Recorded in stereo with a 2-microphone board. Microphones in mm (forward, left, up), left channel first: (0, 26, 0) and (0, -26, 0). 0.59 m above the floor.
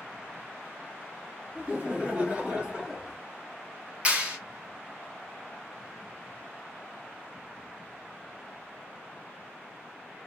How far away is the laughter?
About 1.4 m.